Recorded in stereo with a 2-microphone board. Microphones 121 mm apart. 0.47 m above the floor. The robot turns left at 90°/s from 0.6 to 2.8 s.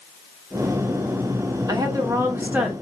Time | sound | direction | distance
1.7 | a woman speaking | 80° right | 1.1 m